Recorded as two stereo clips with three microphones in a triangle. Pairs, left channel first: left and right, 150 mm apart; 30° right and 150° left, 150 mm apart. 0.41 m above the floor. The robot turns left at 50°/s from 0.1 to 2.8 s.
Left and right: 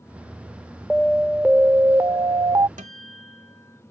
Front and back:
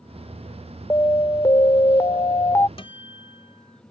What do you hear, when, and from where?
0.9 s an alarm: 10° left; by 2.7 s 75° right
2.8 s a guitar: 75° right